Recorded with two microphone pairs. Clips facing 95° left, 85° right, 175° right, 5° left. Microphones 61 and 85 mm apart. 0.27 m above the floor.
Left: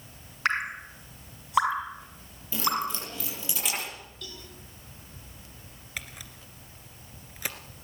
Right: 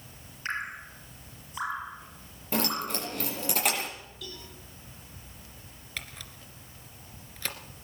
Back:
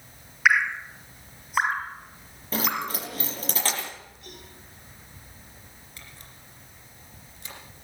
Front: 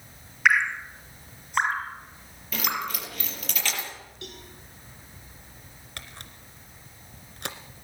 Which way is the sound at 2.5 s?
120° right.